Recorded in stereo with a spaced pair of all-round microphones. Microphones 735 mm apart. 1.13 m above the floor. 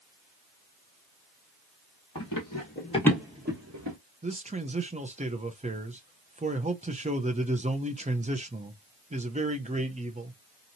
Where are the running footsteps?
30° left (ahead or behind), 1.4 m; by 4.0 s 30° right (ahead or behind), 1.2 m.